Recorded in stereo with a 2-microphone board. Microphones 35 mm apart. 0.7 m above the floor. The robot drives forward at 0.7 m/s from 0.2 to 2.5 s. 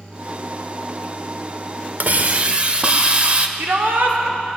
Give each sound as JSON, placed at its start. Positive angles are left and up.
{"t": 2.0, "sound": "a hiss", "side_deg": -55, "distance_m": 0.6}
{"t": 3.6, "sound": "a shout", "side_deg": -65, "distance_m": 2.0}